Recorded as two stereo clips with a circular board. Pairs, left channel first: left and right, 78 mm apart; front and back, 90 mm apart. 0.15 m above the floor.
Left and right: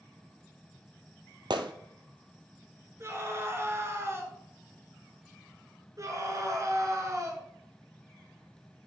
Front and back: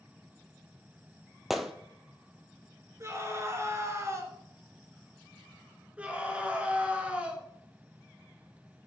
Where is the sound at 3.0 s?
135° right, 1.9 m.